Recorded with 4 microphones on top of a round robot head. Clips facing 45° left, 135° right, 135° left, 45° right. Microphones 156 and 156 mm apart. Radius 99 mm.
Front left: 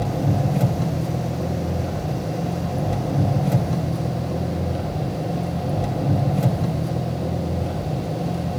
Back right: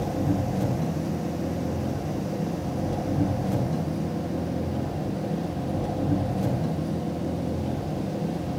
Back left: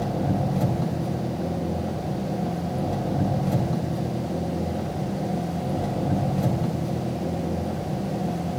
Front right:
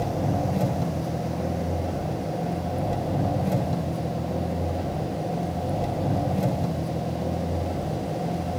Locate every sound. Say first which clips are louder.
0.0 s an engine running: front left 3 dB, back left 1 dB; 25° left, 3 m